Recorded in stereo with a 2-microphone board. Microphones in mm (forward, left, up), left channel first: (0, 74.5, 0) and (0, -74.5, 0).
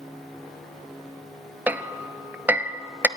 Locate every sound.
1.7 s hammering: 15° right (ahead or behind), 0.7 m